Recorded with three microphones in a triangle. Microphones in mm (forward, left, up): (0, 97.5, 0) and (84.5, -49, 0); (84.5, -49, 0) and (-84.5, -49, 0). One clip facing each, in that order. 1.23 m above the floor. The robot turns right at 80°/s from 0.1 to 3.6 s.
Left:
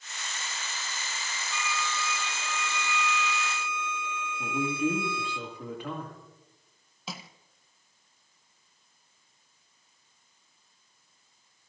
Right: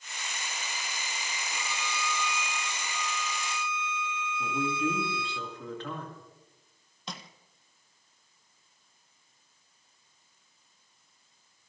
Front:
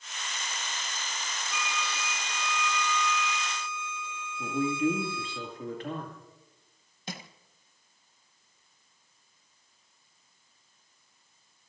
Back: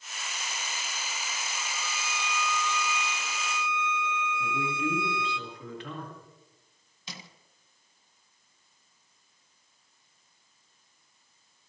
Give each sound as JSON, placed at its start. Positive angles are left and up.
{"t": 1.5, "sound": "a violin", "azimuth_deg": -10, "distance_m": 0.9}
{"t": 4.4, "sound": "a man speaking", "azimuth_deg": 40, "distance_m": 2.5}
{"t": 7.1, "sound": "crushing", "azimuth_deg": 35, "distance_m": 1.0}